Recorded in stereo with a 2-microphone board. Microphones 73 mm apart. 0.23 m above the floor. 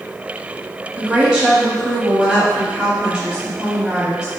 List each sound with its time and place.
0.9 s a woman speaking: 15° right (ahead or behind), 1.3 m